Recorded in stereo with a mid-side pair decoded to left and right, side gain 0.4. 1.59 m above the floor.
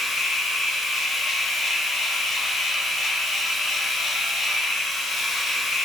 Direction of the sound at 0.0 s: 70° left.